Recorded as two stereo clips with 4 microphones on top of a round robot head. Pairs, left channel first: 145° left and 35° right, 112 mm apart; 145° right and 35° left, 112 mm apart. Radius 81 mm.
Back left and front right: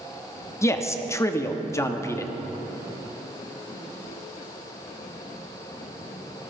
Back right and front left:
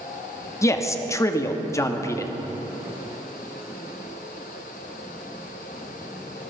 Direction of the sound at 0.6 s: 175° right.